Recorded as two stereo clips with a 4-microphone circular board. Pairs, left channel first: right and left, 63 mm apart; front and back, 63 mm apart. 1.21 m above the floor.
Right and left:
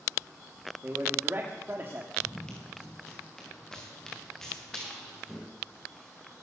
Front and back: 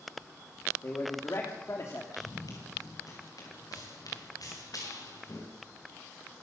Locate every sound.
0.8 s a man speaking: 35° left, 3 m
2.1 s running footsteps: 15° right, 6.5 m; by 5.5 s 5° right, 9 m